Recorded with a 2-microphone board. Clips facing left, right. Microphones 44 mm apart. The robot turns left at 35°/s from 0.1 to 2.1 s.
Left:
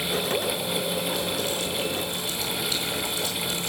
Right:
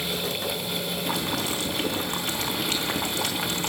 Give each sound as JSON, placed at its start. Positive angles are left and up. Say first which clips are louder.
{"t": 1.1, "sound": "boiling", "louder": "even", "azimuth_deg": -80, "distance_m": 3.5}